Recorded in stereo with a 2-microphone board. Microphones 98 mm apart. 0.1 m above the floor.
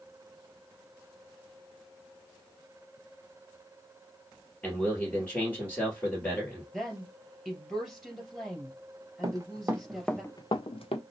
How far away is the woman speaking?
About 2.5 m.